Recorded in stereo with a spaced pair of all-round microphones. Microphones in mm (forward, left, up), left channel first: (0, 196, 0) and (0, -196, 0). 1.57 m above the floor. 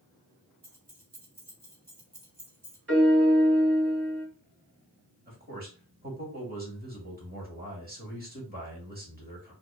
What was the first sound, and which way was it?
Keys jangling, 40° right (ahead or behind).